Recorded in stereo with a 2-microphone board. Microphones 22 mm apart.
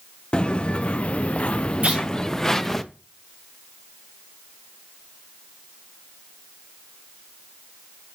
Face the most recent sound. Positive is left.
turn(degrees=-75)  # may be behind; listen again after turning